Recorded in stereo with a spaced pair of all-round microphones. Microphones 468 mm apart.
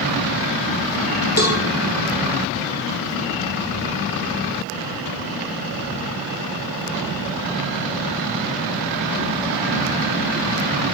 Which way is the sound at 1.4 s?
35° left (ahead or behind).